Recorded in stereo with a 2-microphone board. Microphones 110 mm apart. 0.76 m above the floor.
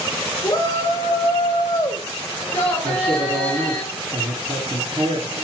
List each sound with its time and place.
0.4 s a shout: 35° left (ahead or behind), 3.5 m; by 3.8 s 10° left (ahead or behind), 4 m
2.8 s a man speaking: 85° right, 5.5 m